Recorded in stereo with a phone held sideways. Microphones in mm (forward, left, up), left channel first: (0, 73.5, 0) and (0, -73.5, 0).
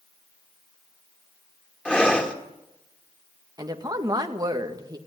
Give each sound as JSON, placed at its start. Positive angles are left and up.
{"t": 1.9, "sound": "breathing", "side_deg": 10, "distance_m": 2.0}
{"t": 3.6, "sound": "a woman speaking", "side_deg": -30, "distance_m": 2.0}